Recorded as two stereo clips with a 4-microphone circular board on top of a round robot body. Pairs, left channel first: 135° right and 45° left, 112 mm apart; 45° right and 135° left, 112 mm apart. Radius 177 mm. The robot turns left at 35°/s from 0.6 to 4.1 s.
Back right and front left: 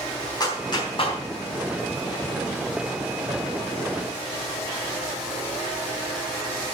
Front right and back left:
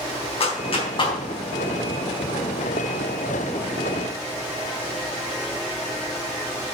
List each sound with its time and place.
0.4 s a clap: 80° right, 3.5 m; by 1.2 s 100° right, 3.5 m